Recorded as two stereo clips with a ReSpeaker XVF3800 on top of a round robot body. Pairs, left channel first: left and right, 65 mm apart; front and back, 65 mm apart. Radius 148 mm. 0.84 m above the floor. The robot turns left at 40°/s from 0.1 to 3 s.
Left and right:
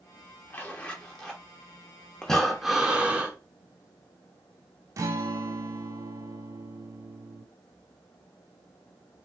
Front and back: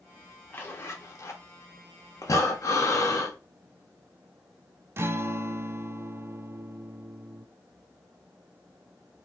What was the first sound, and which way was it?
A zipper, 40° left.